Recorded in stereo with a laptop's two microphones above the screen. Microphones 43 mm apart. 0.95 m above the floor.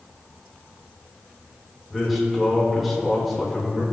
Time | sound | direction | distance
1.9 | a man speaking | centre (ahead or behind) | 3 m